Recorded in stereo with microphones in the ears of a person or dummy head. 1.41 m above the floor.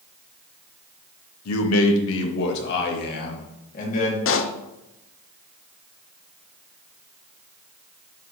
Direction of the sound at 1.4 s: 85° left.